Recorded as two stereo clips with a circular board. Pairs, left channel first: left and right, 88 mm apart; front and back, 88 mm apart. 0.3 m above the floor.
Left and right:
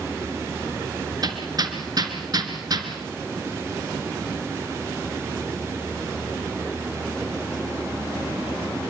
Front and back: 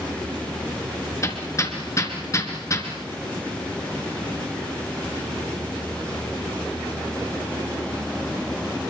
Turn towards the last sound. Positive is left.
turn(degrees=-50)